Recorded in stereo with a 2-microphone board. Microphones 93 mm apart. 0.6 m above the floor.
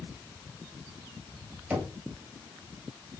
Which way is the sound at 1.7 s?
15° right (ahead or behind).